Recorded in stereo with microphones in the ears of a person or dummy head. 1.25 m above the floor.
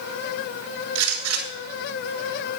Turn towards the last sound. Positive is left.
turn(degrees=-85)